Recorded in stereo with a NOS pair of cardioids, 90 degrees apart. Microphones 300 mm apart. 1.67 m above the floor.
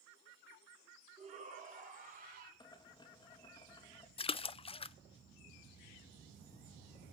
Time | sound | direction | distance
1.2 | a shout | 20° right | 5.5 m
2.6 | boiling | 15° left | 3 m
4.2 | a splash | 20° left | 0.5 m